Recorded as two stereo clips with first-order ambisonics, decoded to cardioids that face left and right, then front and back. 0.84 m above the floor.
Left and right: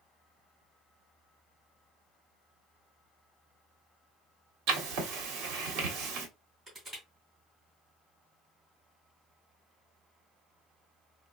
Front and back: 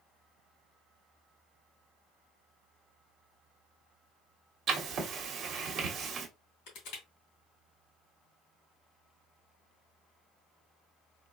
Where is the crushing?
10° right, 2.5 m.